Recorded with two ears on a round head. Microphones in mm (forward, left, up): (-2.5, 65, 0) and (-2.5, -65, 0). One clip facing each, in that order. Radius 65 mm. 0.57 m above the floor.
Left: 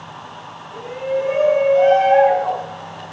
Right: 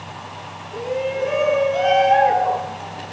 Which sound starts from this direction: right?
A shout, at 0.7 s.